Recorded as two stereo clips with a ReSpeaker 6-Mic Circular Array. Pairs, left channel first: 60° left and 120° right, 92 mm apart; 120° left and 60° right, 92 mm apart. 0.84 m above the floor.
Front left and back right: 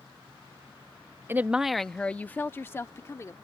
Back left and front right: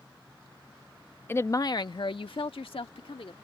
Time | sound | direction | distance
1.3 | a woman speaking | straight behind | ?